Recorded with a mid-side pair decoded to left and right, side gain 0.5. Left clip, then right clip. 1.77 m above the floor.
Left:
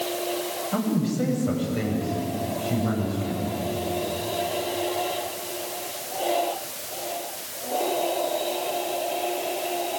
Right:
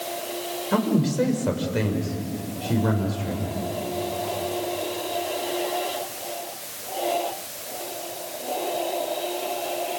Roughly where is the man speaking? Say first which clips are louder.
Right 6 dB; ahead right.